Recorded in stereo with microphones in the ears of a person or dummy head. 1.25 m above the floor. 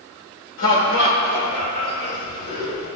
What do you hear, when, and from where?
0.6 s laughter: 60° left (ahead or behind), 1.8 m; by 2.9 s 65° left (ahead or behind), 3.5 m